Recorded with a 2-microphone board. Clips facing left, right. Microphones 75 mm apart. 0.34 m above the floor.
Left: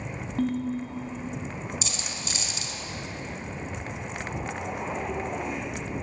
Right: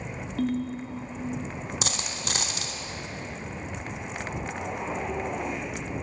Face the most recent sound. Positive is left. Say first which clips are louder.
# right 3 dB
turn(degrees=-70)  # may be behind; listen again after turning